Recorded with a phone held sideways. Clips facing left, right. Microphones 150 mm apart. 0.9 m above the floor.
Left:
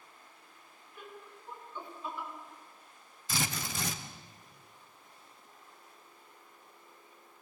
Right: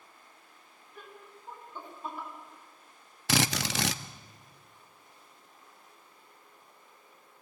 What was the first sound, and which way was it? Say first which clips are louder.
Laughter: left 1 dB; 40° right (ahead or behind).